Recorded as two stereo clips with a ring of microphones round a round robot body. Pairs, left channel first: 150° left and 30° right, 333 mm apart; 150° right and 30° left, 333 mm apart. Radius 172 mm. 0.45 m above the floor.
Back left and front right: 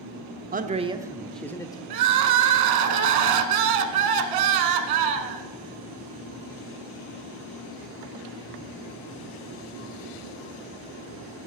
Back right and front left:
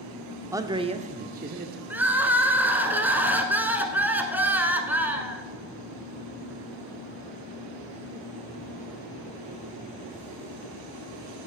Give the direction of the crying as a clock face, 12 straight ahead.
2 o'clock.